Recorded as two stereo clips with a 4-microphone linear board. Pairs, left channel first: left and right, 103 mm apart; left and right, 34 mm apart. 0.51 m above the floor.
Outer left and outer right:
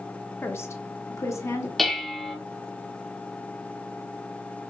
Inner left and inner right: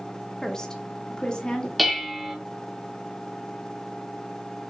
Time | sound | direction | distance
0.4 | a woman speaking | 20° left (ahead or behind) | 0.7 m
1.8 | dishes clattering | centre (ahead or behind) | 0.6 m